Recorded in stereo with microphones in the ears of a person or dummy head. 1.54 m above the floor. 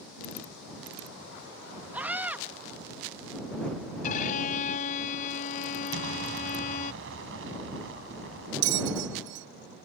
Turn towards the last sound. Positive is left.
turn(degrees=-65)  # may be behind; listen again after turning